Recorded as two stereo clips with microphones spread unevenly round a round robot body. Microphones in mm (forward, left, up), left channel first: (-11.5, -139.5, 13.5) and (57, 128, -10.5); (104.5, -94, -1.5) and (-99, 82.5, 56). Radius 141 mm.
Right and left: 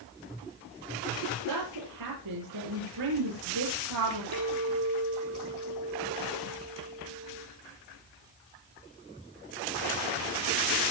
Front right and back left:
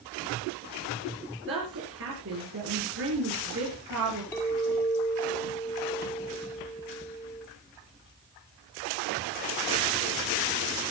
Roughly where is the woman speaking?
Left.